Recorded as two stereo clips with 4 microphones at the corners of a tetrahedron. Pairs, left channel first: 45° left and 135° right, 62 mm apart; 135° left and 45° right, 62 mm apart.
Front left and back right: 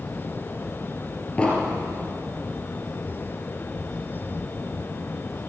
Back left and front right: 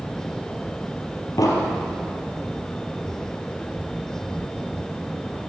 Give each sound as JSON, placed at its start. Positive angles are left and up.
{"t": 1.4, "sound": "an explosion", "azimuth_deg": 120, "distance_m": 2.5}